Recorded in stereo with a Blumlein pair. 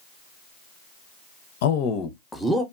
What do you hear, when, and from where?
1.6 s a man speaking: 55° left, 0.5 m; by 2.6 s 5° right, 0.6 m